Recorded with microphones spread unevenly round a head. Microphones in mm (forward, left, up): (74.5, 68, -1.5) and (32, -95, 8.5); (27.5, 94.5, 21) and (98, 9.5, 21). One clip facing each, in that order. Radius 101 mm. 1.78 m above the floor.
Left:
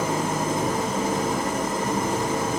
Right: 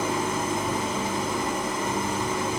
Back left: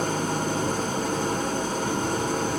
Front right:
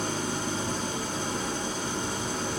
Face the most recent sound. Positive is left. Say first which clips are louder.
# left 2 dB, back left 5 dB
turn(degrees=120)